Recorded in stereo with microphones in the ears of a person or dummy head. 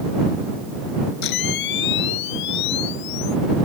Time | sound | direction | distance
1.2 | a camera shutter | 65° left (ahead or behind) | ?